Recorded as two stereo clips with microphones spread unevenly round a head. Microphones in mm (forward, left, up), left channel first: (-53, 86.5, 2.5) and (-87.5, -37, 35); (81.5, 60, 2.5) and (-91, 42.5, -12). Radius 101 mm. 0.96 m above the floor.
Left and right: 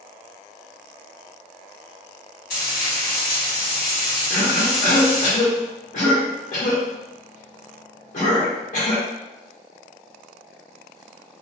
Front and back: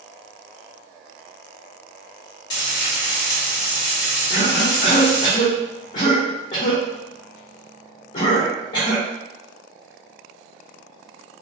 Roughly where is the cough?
Ahead left.